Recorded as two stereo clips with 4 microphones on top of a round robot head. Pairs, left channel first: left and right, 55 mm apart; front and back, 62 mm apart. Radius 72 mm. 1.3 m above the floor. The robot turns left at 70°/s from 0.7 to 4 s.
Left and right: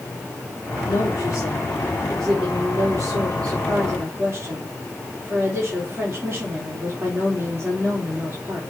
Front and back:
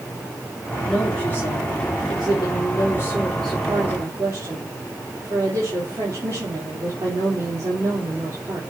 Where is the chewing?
No chewing in this recording.